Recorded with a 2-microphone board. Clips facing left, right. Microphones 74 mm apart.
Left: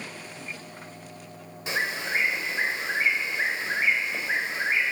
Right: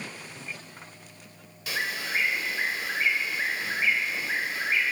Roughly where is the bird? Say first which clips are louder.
Left 3 dB; left.